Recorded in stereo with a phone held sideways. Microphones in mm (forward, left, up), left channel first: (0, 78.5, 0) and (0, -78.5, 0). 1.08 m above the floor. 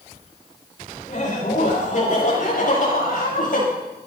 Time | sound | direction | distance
1.1 | laughter | 55° left (ahead or behind) | 5.5 m